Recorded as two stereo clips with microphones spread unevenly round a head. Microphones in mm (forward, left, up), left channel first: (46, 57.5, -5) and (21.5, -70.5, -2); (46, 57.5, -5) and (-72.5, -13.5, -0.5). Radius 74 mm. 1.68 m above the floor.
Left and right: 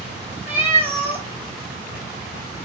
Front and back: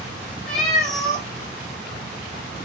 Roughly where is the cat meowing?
Ahead right.